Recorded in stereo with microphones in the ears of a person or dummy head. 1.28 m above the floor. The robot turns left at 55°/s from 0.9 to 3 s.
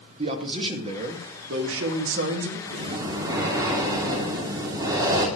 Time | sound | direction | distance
0.2 | a man speaking | 35° right | 1.9 m
2.7 | breathing | 40° right (ahead or behind) | 2 m